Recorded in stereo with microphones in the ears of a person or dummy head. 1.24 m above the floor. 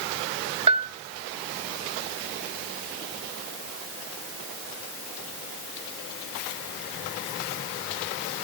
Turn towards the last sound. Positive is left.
turn(degrees=-30)  # may be behind; listen again after turning